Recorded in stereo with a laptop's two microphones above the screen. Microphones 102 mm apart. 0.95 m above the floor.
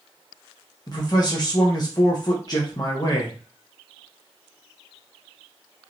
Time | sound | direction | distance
0.9 | a man speaking | 35° left (ahead or behind) | 0.6 m